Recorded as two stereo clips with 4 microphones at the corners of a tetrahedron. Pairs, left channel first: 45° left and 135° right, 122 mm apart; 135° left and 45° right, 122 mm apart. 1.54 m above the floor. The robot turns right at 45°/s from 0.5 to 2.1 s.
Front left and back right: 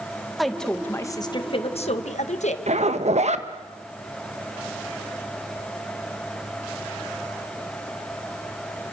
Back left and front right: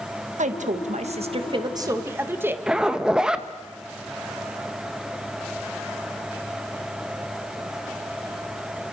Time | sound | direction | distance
0.4 | a woman speaking | 45° right | 1.9 m
2.7 | a zipper | 130° right | 1.3 m